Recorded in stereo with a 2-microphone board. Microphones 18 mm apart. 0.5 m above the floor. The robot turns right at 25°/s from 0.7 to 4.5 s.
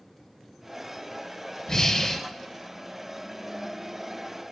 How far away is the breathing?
About 0.5 m.